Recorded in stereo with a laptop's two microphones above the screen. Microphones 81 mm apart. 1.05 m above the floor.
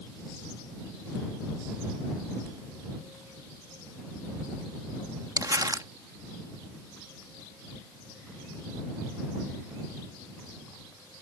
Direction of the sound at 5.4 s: 50° right (ahead or behind).